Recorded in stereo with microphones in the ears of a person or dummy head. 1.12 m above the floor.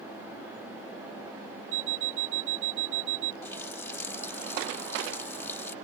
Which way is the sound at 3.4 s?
10° left (ahead or behind).